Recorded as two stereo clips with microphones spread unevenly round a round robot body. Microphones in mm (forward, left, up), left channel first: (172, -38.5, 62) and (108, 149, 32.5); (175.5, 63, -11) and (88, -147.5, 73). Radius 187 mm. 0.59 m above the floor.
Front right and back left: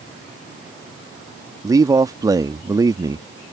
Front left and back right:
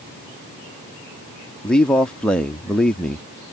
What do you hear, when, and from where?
1.6 s a man speaking: 90° left